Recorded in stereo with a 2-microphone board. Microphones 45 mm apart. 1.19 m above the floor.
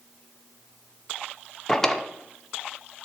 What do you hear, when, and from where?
1.7 s a drawer: 10° left (ahead or behind), 0.6 m